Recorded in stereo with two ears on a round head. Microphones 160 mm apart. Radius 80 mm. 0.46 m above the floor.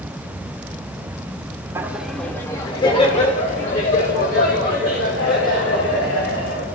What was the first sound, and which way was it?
Laughter, 15° right (ahead or behind).